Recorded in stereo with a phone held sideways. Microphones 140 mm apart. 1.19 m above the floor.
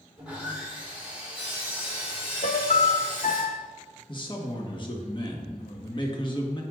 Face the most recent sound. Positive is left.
turn(degrees=35)  # may be behind; listen again after turning